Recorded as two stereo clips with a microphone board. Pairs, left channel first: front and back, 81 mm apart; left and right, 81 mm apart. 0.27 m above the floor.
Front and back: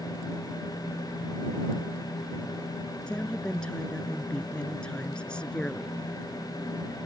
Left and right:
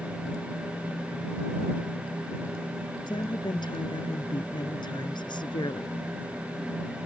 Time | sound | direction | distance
3.1 | a woman speaking | 80° left | ?